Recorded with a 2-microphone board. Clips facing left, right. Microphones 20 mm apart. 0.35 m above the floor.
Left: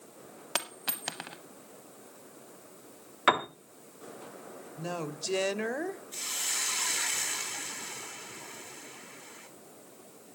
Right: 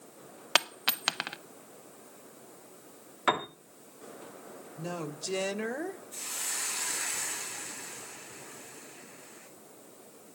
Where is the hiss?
60° left (ahead or behind), 2.5 m.